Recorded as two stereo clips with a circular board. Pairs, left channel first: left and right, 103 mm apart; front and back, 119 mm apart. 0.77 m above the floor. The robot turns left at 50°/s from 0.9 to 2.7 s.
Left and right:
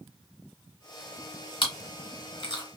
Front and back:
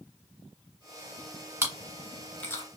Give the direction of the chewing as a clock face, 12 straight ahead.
8 o'clock.